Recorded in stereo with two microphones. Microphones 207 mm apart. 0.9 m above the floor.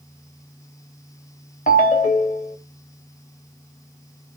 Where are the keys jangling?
I don't hear keys jangling.